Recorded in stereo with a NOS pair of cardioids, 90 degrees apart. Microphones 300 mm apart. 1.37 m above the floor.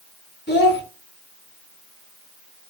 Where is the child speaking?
30° left, 2 m.